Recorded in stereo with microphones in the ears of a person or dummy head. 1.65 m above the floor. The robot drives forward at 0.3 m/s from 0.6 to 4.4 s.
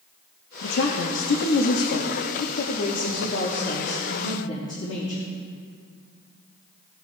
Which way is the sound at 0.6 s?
80° left.